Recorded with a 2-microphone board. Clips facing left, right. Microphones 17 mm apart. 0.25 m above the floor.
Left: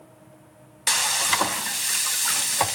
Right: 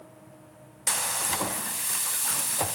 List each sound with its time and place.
0.9 s frying: 45° left (ahead or behind), 0.8 m